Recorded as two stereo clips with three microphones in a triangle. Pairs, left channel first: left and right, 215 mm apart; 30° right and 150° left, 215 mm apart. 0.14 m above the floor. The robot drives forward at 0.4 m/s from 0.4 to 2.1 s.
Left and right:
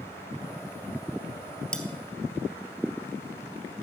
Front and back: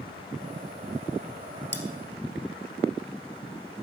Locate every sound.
1.7 s cutlery clinking: 175° left, 1.7 m